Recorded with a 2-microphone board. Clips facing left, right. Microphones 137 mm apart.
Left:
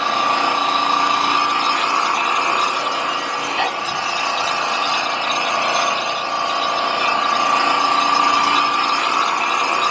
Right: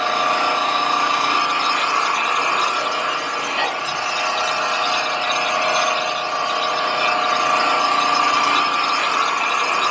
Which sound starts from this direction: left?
An engine running, at 0.0 s.